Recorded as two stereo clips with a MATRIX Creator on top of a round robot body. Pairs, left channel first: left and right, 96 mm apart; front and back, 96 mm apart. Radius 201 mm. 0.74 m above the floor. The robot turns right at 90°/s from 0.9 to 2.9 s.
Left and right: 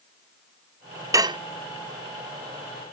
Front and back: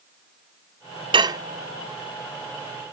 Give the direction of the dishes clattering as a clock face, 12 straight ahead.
5 o'clock.